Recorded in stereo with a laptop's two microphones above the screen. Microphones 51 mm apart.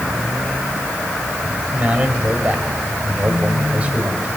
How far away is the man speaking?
About 4.5 m.